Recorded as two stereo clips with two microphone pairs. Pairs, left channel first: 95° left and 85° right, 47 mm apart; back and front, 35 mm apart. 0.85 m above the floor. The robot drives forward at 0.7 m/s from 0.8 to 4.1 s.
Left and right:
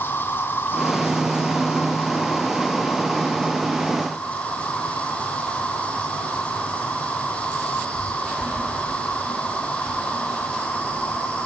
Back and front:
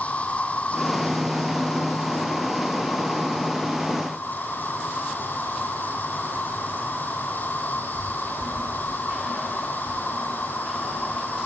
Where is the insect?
135° left, 2.5 m; by 11.5 s 160° left, 4 m.